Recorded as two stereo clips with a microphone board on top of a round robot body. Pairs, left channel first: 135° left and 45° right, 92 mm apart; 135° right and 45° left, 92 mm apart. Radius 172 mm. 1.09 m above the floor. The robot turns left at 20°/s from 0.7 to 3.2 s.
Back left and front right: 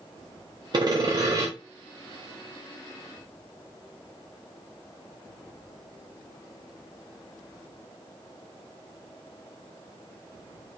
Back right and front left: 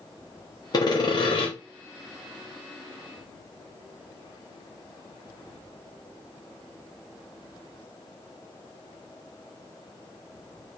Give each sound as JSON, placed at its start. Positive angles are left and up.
{"t": 0.7, "sound": "sawing", "azimuth_deg": -85, "distance_m": 0.9}